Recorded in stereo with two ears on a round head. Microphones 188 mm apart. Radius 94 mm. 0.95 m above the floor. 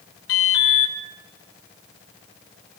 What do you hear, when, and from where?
0.3 s an alarm: 75° left (ahead or behind), 4.5 m